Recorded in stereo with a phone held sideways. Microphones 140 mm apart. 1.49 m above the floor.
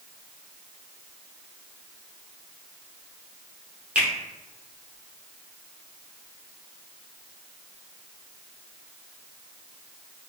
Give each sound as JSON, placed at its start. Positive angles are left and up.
{"t": 4.0, "sound": "a finger snap", "side_deg": -10, "distance_m": 0.8}